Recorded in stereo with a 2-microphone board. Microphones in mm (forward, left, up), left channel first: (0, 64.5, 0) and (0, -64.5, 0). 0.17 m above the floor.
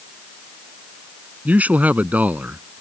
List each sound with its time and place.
1.4 s a man speaking: 10° right (ahead or behind)